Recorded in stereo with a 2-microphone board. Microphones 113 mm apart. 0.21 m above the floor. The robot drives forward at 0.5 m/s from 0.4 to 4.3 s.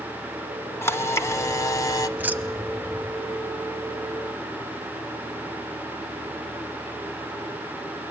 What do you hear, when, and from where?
0.8 s a camera shutter: 25° left (ahead or behind), 1.1 m; by 2.1 s 30° left (ahead or behind), 0.8 m
2.2 s keys jangling: 15° right (ahead or behind), 0.6 m